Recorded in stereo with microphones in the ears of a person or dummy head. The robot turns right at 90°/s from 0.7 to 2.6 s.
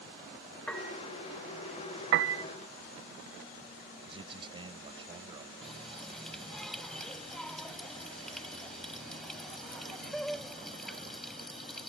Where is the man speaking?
25° right (ahead or behind).